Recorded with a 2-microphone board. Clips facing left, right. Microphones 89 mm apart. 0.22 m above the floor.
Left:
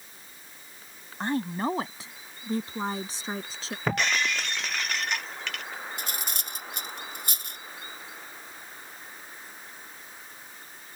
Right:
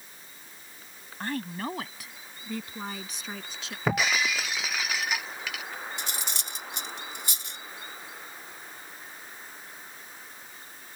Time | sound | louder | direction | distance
1.2 | a woman speaking | left 5 dB | 25° left (ahead or behind) | ?
3.9 | breaking glass | right 1 dB | 5° right (ahead or behind) | ?
6.0 | cutlery clinking | even | 50° left (ahead or behind) | ?